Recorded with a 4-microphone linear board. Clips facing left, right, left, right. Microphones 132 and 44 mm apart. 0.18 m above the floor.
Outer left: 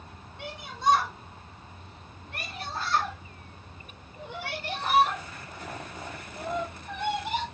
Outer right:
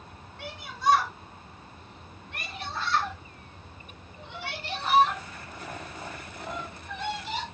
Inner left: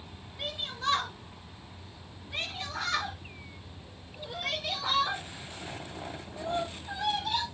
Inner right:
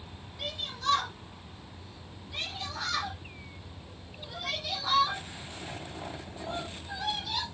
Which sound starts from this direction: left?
A shout, at 0.4 s.